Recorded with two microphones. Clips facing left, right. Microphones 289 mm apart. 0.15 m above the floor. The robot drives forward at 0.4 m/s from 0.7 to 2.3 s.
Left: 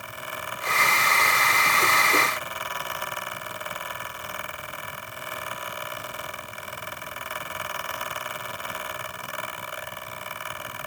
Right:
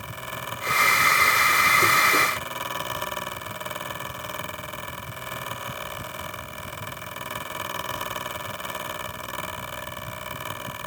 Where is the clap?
I don't hear a clap.